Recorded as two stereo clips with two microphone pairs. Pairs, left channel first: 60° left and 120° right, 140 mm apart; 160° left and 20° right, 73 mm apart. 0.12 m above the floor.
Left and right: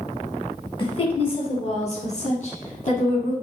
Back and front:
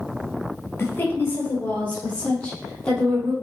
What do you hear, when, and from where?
0.8 s a woman speaking: 105° left, 3 m; by 3.3 s 80° left, 4.5 m